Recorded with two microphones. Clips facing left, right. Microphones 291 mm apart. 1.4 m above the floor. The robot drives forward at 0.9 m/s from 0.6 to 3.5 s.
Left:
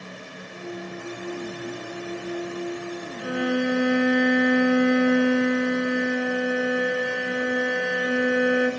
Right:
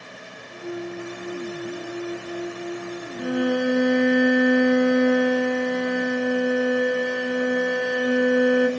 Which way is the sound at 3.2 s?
50° right (ahead or behind).